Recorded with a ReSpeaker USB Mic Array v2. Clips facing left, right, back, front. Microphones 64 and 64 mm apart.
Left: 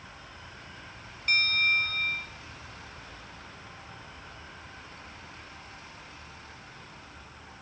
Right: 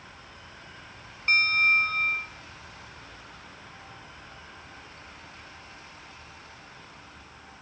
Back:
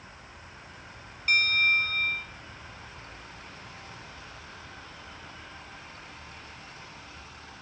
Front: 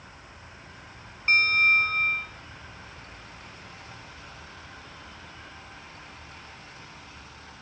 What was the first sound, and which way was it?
A bell, 50° right.